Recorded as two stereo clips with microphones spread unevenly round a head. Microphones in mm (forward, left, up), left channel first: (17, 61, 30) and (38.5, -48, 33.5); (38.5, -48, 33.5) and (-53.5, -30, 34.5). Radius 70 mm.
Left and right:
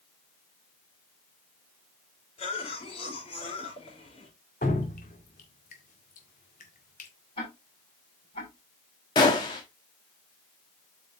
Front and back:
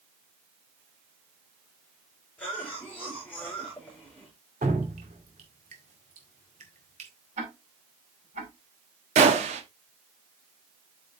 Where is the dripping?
135° left, 1.9 m.